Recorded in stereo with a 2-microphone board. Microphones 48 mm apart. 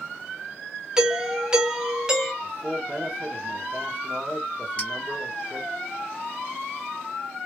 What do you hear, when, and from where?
1.0 s a doorbell: 15° right (ahead or behind), 0.8 m
2.4 s a man speaking: 30° right (ahead or behind), 1.0 m
4.8 s a clink: 25° left (ahead or behind), 1.9 m